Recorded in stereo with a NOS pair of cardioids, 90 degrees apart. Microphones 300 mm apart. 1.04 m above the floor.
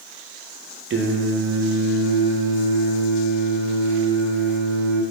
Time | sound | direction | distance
0.9 | singing | 40° right | 0.6 m